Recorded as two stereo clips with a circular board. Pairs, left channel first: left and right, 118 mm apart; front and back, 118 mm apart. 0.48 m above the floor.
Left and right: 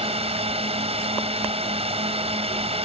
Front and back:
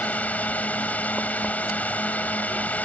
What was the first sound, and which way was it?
A drone, 75° right.